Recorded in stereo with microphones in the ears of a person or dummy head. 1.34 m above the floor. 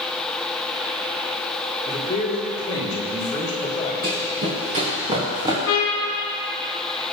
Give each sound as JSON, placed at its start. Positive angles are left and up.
{"t": 1.9, "sound": "a man speaking", "side_deg": 30, "distance_m": 3.0}
{"t": 4.0, "sound": "running footsteps", "side_deg": -45, "distance_m": 3.0}
{"t": 5.7, "sound": "a trumpet", "side_deg": 75, "distance_m": 3.0}